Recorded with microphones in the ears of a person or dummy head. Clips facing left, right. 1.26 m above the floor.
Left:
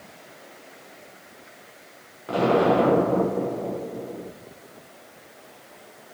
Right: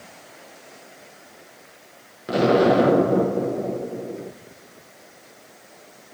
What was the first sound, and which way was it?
An explosion, 35° right (ahead or behind).